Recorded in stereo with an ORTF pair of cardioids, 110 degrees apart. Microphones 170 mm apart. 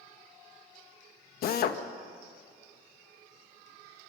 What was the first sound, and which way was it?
A drill, 65° left.